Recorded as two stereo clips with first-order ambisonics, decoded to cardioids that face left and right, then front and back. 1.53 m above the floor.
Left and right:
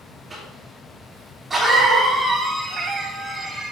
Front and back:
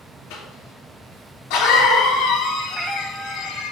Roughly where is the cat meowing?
Behind right.